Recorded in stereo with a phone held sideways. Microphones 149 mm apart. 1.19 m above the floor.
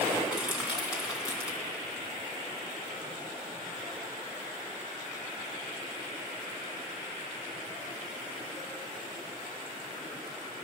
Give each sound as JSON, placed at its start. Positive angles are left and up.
{"t": 0.3, "sound": "crushing", "side_deg": -5, "distance_m": 3.0}